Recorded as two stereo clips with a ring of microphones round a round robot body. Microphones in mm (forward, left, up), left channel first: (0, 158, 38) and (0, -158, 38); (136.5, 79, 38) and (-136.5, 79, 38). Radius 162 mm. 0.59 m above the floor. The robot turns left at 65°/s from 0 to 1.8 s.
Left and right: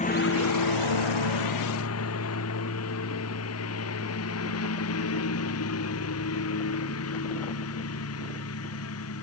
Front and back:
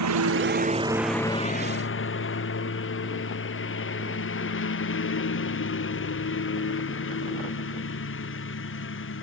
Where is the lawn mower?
160° left; by 9.2 s 45° left.